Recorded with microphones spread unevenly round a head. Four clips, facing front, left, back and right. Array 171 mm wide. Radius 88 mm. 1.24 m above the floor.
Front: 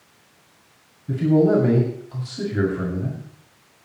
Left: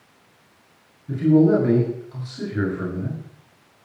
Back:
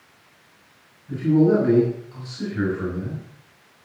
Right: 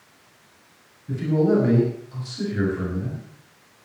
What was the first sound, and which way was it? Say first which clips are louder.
A man speaking: left 4 dB, even; straight ahead.